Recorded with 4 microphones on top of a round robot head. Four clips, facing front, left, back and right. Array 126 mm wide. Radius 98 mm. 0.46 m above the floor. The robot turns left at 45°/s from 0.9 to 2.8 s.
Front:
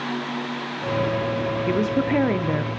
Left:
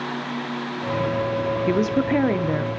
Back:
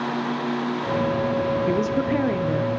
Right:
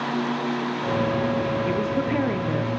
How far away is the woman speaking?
About 0.7 m.